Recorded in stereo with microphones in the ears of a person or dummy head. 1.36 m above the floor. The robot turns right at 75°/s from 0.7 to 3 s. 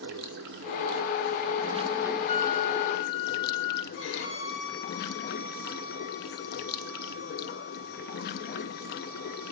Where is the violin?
85° left, 4.5 m.